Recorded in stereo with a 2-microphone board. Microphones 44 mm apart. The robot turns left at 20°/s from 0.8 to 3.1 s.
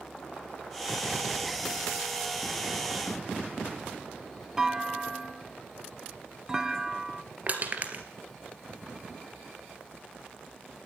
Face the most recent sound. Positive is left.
turn(degrees=-40)  # may be behind; listen again after turning